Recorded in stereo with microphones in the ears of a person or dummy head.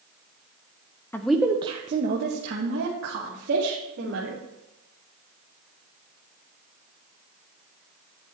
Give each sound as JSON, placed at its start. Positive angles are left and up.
{"t": 1.1, "sound": "a woman speaking", "side_deg": 10, "distance_m": 0.7}